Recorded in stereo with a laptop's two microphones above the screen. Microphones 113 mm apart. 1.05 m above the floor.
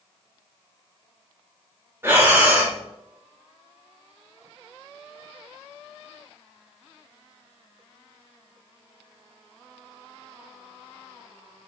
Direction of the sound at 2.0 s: 20° right (ahead or behind).